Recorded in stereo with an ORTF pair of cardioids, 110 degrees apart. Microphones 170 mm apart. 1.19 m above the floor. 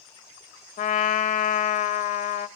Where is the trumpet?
50° left, 1.1 m.